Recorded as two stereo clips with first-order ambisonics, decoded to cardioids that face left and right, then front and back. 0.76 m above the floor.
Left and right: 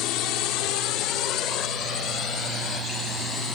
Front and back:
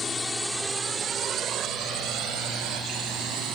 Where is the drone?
70° left; by 3.6 s 155° left.